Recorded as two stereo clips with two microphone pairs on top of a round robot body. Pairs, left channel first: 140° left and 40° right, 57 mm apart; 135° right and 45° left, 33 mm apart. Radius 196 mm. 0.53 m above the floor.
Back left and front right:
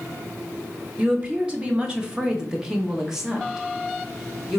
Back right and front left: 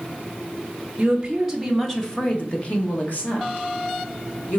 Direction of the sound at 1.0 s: 5° left.